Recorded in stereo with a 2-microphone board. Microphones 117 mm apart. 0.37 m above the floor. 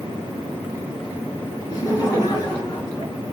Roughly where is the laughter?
Left.